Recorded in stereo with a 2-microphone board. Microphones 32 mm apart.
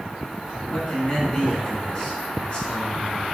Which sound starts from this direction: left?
A man speaking, at 0.7 s.